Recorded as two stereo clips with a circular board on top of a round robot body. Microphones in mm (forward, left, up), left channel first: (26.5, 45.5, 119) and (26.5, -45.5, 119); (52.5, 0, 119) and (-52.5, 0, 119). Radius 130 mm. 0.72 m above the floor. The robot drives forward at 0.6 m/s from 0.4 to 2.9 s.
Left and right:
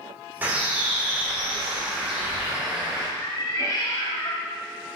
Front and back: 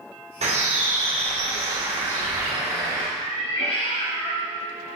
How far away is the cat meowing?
About 2.5 m.